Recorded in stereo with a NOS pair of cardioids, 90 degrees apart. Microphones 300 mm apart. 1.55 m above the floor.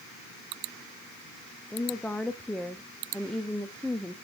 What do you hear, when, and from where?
1.7 s a woman speaking: 5° left, 0.9 m